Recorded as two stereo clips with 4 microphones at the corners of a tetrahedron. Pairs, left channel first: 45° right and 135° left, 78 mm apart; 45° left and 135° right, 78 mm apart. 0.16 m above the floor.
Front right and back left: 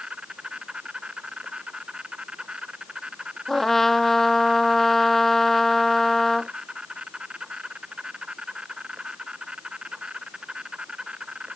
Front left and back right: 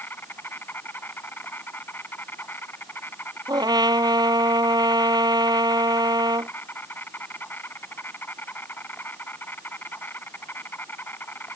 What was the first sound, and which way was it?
An insect, 70° left.